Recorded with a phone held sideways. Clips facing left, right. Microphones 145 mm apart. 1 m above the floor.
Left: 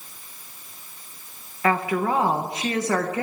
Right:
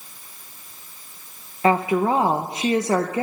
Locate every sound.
1.6 s a woman speaking: 25° right (ahead or behind), 0.9 m